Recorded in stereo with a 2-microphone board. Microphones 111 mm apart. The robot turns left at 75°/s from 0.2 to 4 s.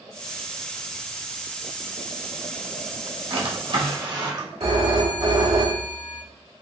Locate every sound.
3.3 s a drawer: 70° right, 1.0 m; by 4.5 s 120° right, 1.0 m
4.6 s a phone ringing: 60° right (ahead or behind), 1.6 m